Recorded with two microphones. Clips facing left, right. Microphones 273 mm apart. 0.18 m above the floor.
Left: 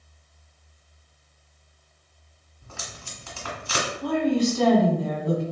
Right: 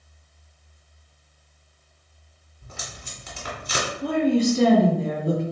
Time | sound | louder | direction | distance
2.6 | tape being pulled | right 1 dB | 20° right (ahead or behind) | 1.8 m
4.0 | a woman speaking | right 2 dB | 30° right (ahead or behind) | 1.3 m